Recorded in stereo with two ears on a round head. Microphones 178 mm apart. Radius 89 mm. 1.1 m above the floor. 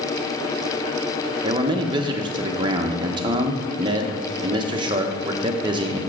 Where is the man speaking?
25° right (ahead or behind), 0.9 m.